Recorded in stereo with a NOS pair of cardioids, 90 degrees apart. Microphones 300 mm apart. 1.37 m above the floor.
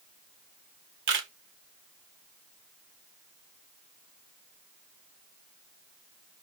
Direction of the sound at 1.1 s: 40° right.